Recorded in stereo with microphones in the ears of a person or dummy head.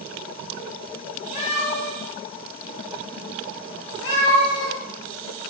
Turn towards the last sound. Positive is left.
turn(degrees=65)  # may be behind; listen again after turning